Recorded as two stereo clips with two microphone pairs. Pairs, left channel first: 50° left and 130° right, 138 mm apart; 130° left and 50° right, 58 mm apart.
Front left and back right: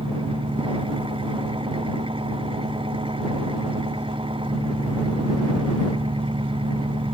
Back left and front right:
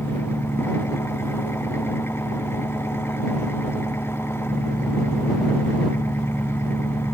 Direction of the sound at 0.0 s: Straight behind.